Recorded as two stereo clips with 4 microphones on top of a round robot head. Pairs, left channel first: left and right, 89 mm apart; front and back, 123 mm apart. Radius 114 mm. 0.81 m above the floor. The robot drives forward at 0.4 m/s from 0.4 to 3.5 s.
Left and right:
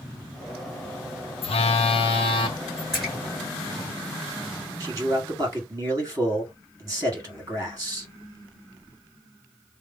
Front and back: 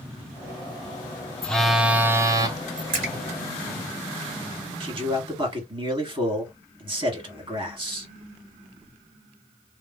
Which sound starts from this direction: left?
A phone buzzing, at 1.4 s.